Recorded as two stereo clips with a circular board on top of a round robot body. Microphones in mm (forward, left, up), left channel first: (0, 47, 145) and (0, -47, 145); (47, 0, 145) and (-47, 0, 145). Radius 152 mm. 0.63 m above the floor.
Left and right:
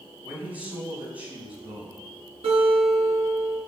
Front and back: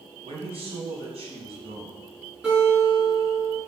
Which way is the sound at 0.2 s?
165° right.